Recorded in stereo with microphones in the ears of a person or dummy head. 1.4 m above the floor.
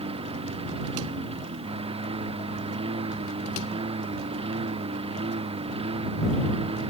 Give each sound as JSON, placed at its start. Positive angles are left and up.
{"t": 0.0, "sound": "a lawn mower", "side_deg": -30}